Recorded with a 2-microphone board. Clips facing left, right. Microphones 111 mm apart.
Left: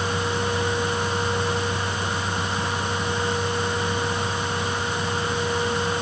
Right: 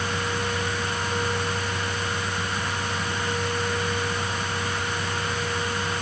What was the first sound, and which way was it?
Only background noise.